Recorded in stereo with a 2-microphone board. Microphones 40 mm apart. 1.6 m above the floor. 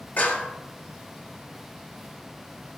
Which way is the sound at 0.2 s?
45° left (ahead or behind).